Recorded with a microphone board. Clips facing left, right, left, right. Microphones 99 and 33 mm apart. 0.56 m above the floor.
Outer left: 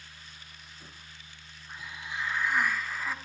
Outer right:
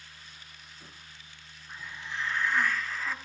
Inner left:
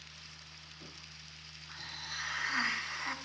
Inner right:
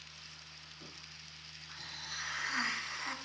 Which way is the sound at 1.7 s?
10° left (ahead or behind).